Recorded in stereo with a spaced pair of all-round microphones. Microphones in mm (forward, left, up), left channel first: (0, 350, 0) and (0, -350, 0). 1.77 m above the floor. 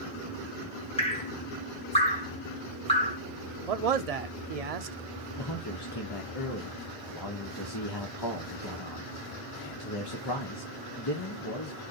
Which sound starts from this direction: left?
A man speaking, at 5.4 s.